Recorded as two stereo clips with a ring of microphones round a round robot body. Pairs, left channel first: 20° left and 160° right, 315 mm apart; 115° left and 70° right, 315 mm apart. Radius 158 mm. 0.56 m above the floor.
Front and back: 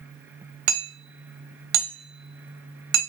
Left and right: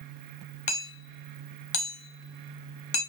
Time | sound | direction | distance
0.7 | hammering | 175° left | 1.3 m